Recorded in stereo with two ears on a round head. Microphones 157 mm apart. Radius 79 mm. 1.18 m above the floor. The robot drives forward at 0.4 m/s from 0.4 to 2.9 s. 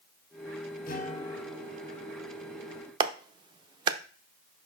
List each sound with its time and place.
0.9 s a guitar: 50° left (ahead or behind), 1.3 m; by 2.6 s 35° left (ahead or behind), 1.8 m
3.0 s a clap: 25° right (ahead or behind), 0.6 m